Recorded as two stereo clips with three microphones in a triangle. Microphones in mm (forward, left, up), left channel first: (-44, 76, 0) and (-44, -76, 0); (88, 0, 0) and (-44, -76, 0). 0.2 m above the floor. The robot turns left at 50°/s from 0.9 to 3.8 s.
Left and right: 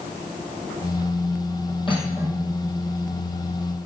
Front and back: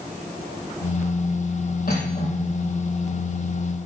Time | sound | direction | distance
1.9 | cutlery clinking | 35° left | 4 m